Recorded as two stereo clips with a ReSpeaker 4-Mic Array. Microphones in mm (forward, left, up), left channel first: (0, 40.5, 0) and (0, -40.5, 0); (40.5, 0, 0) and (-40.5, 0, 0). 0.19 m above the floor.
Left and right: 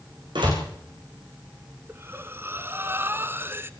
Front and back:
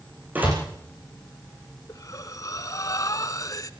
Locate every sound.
0.3 s a door slam: 110° right, 8.5 m
1.9 s breathing: 35° right, 1.1 m